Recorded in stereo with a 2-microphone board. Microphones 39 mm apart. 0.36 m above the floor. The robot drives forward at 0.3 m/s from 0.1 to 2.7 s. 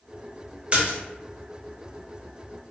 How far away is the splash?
About 0.8 m.